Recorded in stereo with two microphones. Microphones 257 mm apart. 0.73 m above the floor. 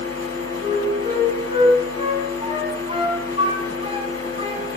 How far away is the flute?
About 3.5 m.